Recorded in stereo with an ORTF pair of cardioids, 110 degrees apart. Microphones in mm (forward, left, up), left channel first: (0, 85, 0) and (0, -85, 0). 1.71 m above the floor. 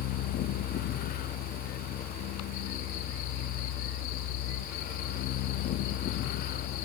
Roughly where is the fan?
Ahead left.